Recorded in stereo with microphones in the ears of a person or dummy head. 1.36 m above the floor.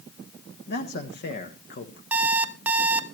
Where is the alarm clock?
10° right (ahead or behind), 1.0 m.